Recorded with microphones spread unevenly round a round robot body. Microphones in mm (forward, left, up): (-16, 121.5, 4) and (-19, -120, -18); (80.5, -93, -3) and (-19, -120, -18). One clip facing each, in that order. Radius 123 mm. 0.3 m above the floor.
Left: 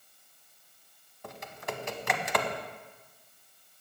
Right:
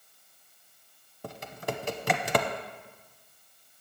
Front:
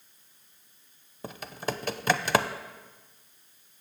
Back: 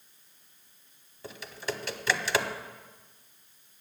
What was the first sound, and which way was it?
Typing on a keyboard, 35° right.